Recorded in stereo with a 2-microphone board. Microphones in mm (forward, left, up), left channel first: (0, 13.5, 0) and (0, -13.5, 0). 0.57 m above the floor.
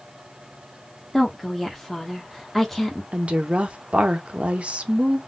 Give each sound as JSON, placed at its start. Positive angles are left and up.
{"t": 1.1, "sound": "a woman speaking", "side_deg": 5, "distance_m": 1.2}
{"t": 3.1, "sound": "a woman speaking", "side_deg": -45, "distance_m": 1.0}